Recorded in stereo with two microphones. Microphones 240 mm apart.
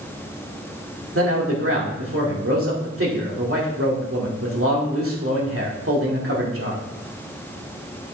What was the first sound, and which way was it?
A man speaking, 65° right (ahead or behind).